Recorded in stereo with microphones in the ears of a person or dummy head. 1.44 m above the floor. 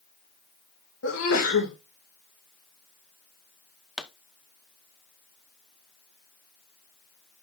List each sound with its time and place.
1.0 s a sneeze: 80° left, 2.0 m
4.0 s a pop: 5° right (ahead or behind), 0.5 m